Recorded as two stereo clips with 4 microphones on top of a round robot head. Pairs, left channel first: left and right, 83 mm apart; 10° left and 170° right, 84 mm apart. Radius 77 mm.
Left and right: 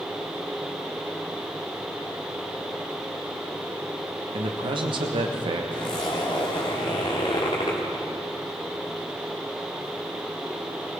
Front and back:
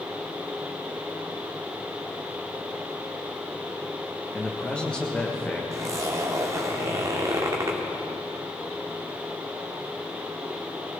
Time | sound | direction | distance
4.3 | a man speaking | 70° right | 1.3 m
5.7 | a zipper | 140° left | 1.6 m